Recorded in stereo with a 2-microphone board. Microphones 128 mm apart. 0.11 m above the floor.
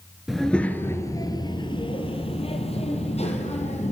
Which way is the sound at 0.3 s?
Centre (ahead or behind).